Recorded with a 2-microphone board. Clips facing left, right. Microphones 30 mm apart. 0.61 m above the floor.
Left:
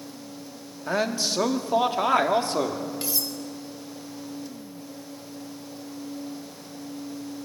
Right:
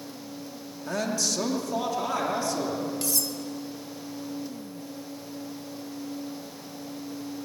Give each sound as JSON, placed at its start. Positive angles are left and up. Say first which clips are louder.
{"t": 0.9, "sound": "a man speaking", "louder": "left 3 dB", "side_deg": 25, "distance_m": 1.4}
{"t": 3.0, "sound": "cutlery clinking", "louder": "even", "side_deg": 20, "distance_m": 1.3}